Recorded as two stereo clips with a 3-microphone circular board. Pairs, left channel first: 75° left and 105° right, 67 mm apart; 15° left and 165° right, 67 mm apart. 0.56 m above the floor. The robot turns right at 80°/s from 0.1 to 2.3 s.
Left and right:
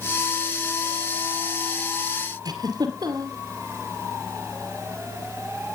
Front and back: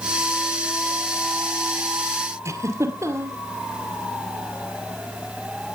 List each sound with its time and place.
2.5 s a giggle: 125° right, 2.5 m